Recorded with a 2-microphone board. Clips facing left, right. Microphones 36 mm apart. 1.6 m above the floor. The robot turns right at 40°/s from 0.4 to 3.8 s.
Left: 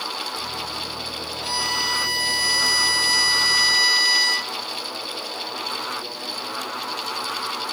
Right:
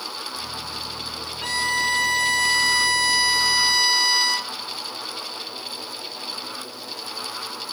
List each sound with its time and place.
1.4 s a violin: 115° right, 1.3 m; by 4.5 s 15° right, 1.3 m